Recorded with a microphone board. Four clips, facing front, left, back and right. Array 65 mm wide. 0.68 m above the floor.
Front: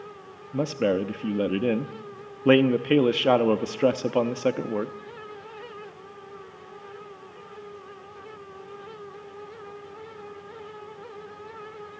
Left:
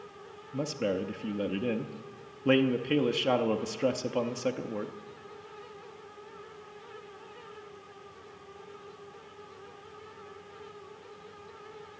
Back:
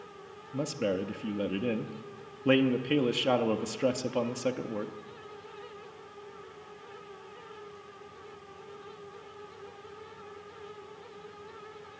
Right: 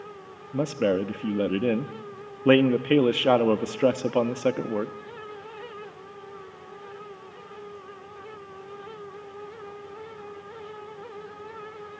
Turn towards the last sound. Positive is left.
turn(degrees=-45)